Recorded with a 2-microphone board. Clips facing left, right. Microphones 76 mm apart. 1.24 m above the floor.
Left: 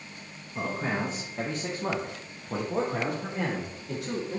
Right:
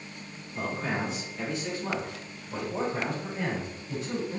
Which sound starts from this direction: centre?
A man speaking, at 0.6 s.